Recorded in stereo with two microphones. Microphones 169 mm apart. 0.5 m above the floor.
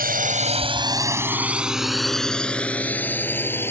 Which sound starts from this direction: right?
A drone, at 0.0 s.